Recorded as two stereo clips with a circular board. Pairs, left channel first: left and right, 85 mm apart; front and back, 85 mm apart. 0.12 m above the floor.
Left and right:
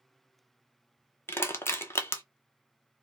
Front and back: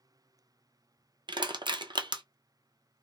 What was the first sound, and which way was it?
Crushing, 155° left.